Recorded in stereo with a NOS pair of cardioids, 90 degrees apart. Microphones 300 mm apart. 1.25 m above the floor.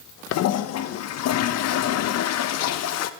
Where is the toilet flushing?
60° left, 0.7 m.